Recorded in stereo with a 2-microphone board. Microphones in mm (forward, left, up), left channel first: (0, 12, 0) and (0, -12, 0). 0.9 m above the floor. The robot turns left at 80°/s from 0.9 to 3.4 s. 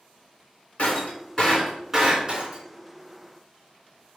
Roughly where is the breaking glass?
Left.